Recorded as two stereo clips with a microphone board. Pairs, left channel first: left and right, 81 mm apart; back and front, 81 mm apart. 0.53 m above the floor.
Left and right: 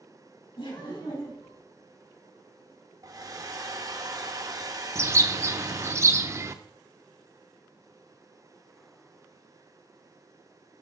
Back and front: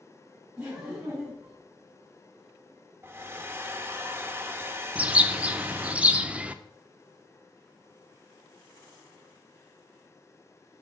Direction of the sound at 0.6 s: 80° left.